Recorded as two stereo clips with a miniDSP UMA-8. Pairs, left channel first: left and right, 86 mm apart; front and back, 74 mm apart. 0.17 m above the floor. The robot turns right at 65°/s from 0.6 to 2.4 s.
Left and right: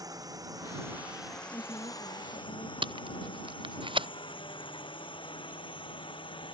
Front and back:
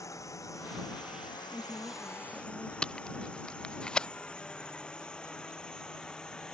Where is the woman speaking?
55° left; by 2.7 s 110° left.